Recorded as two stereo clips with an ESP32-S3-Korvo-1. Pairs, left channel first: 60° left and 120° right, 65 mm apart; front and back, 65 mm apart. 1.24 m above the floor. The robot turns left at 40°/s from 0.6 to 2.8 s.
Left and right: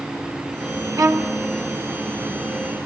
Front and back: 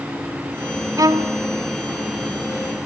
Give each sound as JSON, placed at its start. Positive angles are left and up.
{"t": 1.0, "sound": "a violin", "azimuth_deg": -150, "distance_m": 1.0}